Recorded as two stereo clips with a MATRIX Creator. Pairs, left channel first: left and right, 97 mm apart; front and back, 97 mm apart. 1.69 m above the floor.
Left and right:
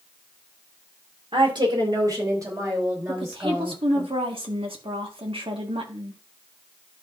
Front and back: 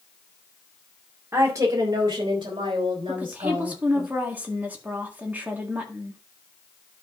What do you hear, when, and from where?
1.3 s a woman speaking: 115° right, 2 m; by 4.1 s 155° right, 5.5 m
3.1 s a woman speaking: 110° right, 1.7 m